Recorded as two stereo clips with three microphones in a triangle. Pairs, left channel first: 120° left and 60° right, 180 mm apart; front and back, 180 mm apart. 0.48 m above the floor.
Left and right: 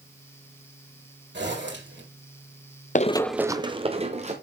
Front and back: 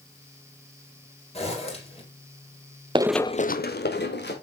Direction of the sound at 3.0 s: 130° left.